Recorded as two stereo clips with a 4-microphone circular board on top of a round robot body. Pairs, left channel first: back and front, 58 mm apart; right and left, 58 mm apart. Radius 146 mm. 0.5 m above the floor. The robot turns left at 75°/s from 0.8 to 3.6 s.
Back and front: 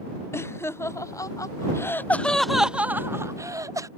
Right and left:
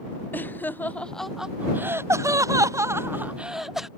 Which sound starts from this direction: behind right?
Laughter, at 0.3 s.